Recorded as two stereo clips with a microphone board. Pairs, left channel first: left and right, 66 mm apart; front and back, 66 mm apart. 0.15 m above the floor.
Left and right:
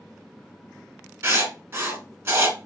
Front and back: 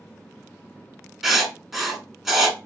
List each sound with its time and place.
1.2 s writing: 95° right, 0.8 m